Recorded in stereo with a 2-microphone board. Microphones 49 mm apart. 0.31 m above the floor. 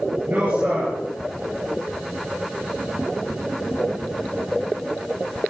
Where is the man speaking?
40° right (ahead or behind), 5 m.